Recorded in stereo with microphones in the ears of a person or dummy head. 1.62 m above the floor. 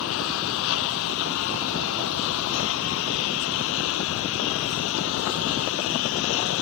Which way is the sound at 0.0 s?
80° left.